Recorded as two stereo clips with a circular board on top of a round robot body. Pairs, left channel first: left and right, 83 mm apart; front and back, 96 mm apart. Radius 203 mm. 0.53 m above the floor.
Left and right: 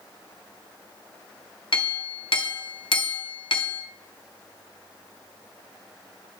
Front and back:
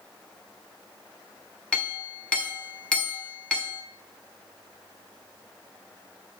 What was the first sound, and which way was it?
A clink, 80° left.